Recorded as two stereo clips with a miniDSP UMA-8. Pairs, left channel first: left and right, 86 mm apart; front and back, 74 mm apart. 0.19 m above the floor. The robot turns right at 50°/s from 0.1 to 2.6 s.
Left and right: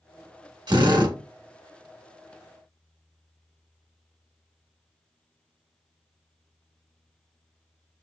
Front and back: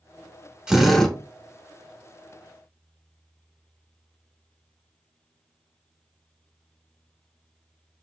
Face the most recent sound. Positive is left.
turn(degrees=-5)